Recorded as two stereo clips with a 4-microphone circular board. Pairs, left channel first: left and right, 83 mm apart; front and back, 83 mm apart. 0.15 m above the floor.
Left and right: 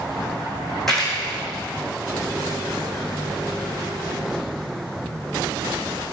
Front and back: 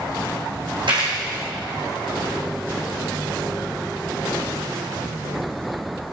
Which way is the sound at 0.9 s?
175° left.